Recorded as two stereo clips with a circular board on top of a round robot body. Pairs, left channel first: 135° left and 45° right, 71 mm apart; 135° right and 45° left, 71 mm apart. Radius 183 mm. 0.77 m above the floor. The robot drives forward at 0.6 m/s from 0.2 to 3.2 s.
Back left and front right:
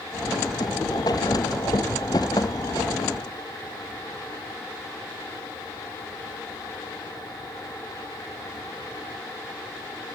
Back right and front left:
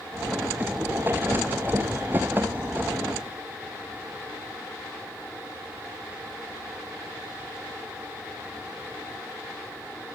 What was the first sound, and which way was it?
Only background noise.